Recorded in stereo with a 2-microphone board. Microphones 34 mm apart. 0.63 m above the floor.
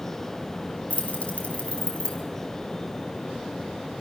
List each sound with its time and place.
0.9 s keys jangling: 45° left (ahead or behind), 3 m; by 2.2 s 30° left (ahead or behind), 3.5 m